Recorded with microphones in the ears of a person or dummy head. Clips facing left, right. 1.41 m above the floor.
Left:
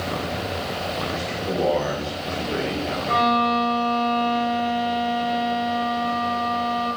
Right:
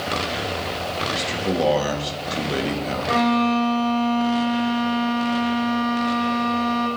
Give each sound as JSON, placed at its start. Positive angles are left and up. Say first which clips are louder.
{"t": 1.1, "sound": "a man speaking", "louder": "right 5 dB", "side_deg": -55, "distance_m": 3.0}
{"t": 3.1, "sound": "a violin", "louder": "right 3 dB", "side_deg": -60, "distance_m": 5.5}